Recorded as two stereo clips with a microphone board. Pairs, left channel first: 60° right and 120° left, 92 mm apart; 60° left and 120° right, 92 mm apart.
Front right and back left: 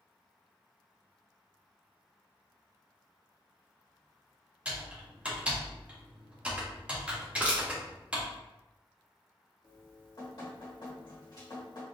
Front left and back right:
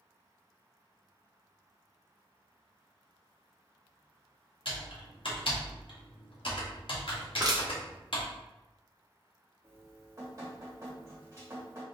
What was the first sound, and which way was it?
Typing on a keyboard, 45° left.